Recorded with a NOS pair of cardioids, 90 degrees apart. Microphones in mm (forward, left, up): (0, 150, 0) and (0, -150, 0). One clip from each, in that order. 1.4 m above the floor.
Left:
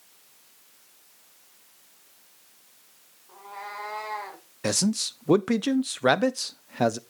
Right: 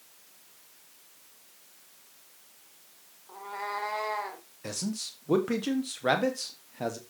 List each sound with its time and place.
3.3 s a cat meowing: 25° right, 2.5 m; by 4.5 s 5° right, 2.5 m
4.6 s a man speaking: 60° left, 0.9 m